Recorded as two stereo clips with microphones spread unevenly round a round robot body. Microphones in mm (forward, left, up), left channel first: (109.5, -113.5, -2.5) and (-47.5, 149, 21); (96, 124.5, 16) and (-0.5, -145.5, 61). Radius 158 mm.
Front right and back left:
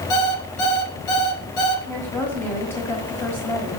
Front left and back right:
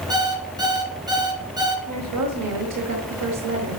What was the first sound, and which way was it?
An alarm clock, 30° right.